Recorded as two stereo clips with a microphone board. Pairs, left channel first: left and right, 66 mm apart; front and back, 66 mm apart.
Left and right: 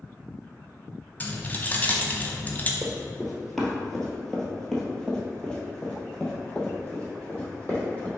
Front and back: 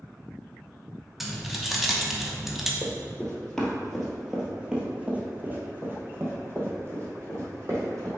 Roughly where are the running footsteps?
Ahead.